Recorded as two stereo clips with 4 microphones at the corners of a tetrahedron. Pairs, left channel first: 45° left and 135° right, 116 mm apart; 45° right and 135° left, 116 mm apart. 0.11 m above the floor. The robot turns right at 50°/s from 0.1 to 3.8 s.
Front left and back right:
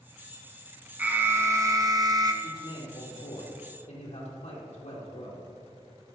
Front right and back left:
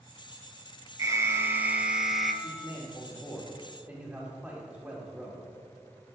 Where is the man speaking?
15° right, 3.5 m; by 5.4 s 55° left, 3.5 m.